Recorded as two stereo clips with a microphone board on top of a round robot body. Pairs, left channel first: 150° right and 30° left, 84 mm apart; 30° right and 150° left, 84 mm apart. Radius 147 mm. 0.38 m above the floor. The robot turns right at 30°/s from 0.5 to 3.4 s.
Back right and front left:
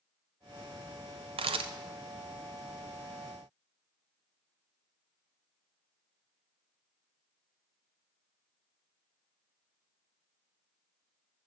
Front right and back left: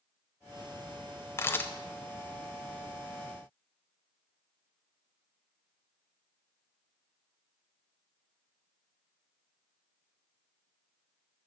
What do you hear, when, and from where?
1.4 s a camera shutter: 30° left, 0.5 m; by 1.7 s 40° left, 0.5 m